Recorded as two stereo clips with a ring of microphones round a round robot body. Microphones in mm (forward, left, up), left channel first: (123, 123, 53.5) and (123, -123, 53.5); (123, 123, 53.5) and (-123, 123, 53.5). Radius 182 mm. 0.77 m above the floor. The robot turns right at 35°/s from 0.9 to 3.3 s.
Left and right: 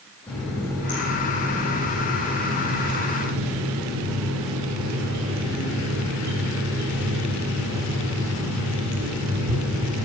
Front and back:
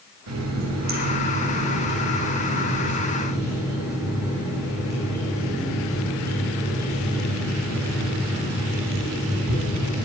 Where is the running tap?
175° left, 3 m; by 10.0 s 100° right, 3 m.